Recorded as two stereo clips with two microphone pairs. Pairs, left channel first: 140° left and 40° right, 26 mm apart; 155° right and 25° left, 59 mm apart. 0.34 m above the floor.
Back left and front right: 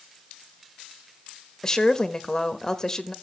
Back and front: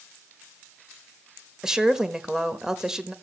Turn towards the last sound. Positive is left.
turn(degrees=100)